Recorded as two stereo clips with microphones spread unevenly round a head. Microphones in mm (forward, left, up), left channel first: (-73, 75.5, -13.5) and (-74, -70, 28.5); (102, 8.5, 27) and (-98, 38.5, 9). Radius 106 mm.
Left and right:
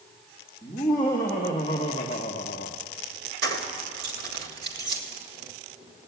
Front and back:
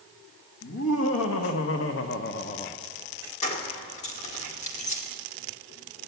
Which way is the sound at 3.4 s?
70° right.